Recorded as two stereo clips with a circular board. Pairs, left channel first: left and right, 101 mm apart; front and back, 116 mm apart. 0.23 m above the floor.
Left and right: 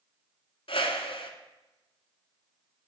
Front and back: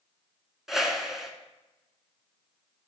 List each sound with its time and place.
0.7 s a whoosh: 95° left, 1.1 m